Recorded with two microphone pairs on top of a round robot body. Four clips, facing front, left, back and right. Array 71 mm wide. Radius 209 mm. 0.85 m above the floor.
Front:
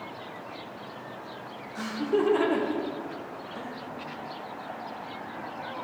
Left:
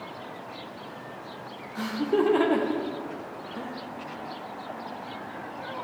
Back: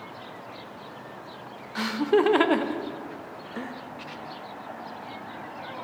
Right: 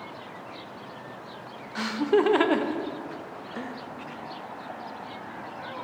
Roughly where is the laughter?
Behind right.